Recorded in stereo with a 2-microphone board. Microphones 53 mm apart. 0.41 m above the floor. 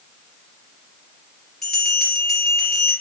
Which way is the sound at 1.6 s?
10° left (ahead or behind).